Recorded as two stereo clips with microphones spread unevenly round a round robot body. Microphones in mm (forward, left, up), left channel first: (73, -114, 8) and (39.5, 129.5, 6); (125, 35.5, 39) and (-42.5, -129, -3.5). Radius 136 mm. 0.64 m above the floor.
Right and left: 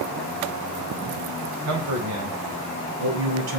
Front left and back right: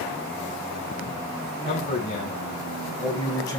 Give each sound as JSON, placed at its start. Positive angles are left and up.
{"t": 1.6, "sound": "a man speaking", "azimuth_deg": 105, "distance_m": 4.0}